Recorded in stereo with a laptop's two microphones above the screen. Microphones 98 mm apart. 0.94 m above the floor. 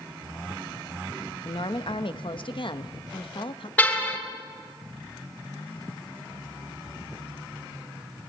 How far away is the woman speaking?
About 1.1 m.